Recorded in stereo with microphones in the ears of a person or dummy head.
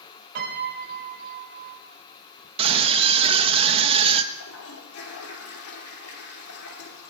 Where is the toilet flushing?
85° left, 3.5 m.